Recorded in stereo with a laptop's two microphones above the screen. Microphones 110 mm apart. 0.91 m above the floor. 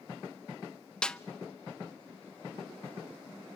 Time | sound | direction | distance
1.0 | a snare drum | 5° left (ahead or behind) | 0.6 m